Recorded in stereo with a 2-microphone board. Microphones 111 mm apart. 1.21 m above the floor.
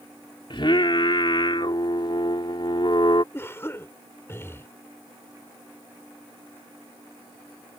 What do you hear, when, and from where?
0.5 s singing: 55° left (ahead or behind)
3.3 s a cough: 25° left (ahead or behind)